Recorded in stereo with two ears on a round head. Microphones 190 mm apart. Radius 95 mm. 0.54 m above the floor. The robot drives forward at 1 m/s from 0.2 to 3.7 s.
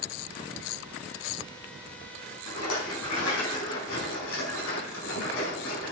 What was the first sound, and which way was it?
A rattle, 80° left.